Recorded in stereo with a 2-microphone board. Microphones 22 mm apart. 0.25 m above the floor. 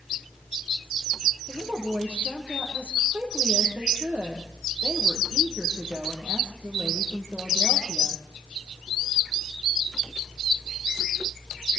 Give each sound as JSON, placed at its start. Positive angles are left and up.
{"t": 1.5, "sound": "a woman speaking", "side_deg": -60, "distance_m": 7.5}